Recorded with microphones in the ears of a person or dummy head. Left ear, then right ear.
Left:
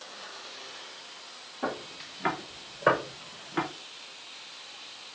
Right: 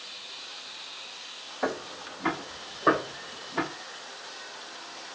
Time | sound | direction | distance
1.6 | footsteps | 15° right (ahead or behind) | 1.4 m